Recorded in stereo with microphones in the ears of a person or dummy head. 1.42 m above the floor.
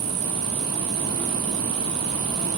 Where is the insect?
65° right (ahead or behind), 1.0 m.